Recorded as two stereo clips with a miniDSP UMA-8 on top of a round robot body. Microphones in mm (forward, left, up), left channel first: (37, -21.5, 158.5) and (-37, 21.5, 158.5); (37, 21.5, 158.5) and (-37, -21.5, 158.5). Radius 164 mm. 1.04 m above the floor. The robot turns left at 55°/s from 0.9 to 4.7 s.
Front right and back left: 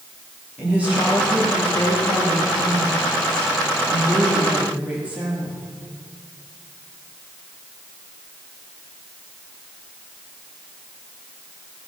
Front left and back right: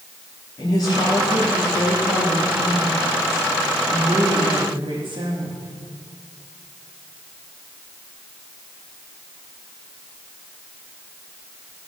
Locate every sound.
0.6 s a woman speaking: 75° left, 3 m; by 5.7 s 135° right, 3 m